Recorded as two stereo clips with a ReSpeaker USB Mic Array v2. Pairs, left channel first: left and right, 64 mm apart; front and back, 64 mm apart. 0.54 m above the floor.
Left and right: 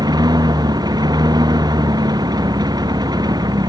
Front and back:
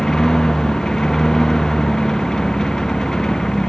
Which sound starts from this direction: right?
A lawn mower, at 0.0 s.